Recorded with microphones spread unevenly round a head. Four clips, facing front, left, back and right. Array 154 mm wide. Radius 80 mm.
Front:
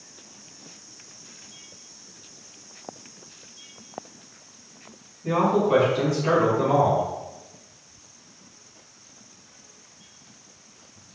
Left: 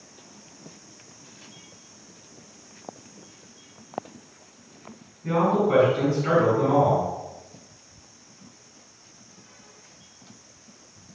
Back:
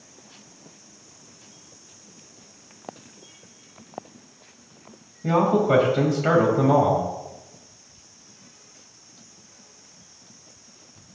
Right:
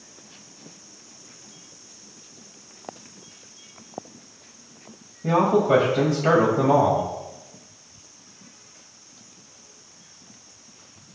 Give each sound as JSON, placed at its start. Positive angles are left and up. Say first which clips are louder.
{"t": 5.2, "sound": "a man speaking", "louder": "right 3 dB, back 1 dB", "azimuth_deg": -135, "distance_m": 4.5}